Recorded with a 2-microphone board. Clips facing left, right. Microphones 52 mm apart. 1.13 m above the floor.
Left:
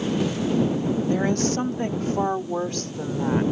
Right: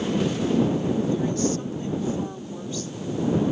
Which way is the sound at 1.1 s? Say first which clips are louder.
Left 2 dB; 75° left (ahead or behind).